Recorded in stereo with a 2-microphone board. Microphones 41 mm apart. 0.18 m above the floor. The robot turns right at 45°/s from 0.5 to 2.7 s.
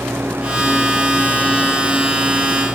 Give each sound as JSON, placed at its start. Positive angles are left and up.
{"t": 0.0, "sound": "an engine running", "azimuth_deg": -75}